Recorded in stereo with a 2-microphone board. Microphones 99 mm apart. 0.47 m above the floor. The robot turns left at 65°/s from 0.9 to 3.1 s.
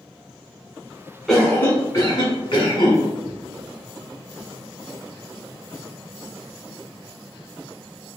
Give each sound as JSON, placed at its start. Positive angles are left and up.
{"t": 1.3, "sound": "a cough", "azimuth_deg": 175, "distance_m": 1.2}
{"t": 3.2, "sound": "a cupboard door", "side_deg": 15, "distance_m": 0.6}